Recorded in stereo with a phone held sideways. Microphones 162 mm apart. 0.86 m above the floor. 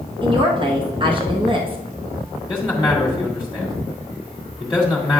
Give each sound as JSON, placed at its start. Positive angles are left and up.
{"t": 0.2, "sound": "a woman speaking", "side_deg": -30, "distance_m": 0.9}
{"t": 2.5, "sound": "a man speaking", "side_deg": 0, "distance_m": 1.5}